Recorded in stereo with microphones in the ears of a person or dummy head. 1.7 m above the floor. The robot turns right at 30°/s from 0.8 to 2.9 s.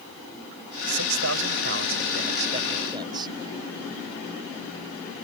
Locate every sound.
0.9 s a man speaking: 85° right; by 3.3 s 25° right